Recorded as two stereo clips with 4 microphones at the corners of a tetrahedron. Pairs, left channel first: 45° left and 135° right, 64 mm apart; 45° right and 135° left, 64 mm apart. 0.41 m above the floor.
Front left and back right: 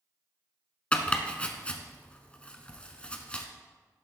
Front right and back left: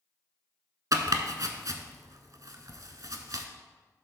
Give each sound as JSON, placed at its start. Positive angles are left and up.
{"t": 0.9, "sound": "chopping", "azimuth_deg": 115, "distance_m": 0.8}